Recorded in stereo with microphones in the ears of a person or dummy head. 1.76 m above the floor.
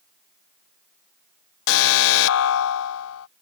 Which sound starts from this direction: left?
An alarm, at 1.7 s.